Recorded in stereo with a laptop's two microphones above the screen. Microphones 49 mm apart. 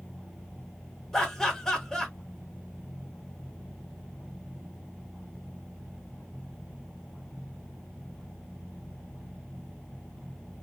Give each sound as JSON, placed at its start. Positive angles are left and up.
{"t": 1.1, "sound": "laughter", "side_deg": 10, "distance_m": 1.2}